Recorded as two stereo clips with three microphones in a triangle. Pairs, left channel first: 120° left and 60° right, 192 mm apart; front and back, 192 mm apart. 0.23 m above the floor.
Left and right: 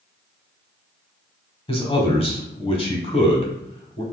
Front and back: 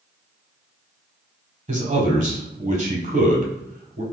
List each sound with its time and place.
1.7 s a man speaking: 165° left, 1.2 m